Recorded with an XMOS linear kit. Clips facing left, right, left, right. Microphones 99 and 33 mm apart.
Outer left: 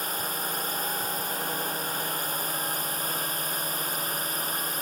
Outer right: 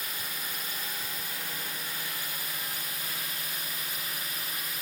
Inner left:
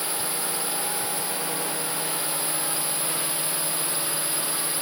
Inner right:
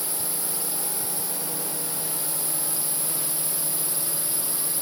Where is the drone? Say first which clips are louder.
Outer left 8 dB, inner left 5 dB; 45° left (ahead or behind).